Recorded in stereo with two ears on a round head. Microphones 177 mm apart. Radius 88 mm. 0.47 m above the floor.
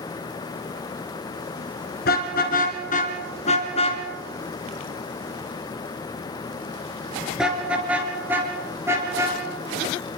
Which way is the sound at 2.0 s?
50° left (ahead or behind).